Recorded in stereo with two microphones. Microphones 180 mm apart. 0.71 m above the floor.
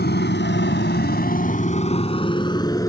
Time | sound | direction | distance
0.0 | a motorcycle | 70° left (ahead or behind) | ?